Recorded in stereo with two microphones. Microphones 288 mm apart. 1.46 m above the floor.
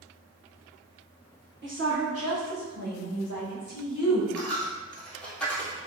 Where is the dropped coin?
5° left (ahead or behind), 1.8 m.